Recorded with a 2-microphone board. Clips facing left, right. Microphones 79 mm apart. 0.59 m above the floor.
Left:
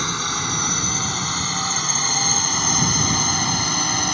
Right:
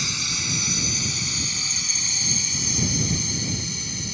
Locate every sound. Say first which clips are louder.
0.0 s a drone: left 8 dB; 50° left (ahead or behind); by 4.2 s 70° left (ahead or behind)